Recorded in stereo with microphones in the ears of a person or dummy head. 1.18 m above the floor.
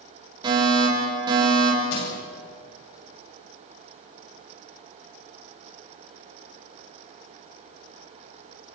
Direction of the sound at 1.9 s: 75° left (ahead or behind).